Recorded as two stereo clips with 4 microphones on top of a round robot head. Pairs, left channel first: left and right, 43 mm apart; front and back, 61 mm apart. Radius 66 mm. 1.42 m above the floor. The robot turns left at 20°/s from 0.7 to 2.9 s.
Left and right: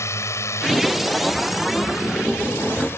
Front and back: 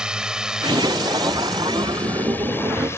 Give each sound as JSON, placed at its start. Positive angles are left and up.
{"t": 0.0, "sound": "a drone", "azimuth_deg": 100}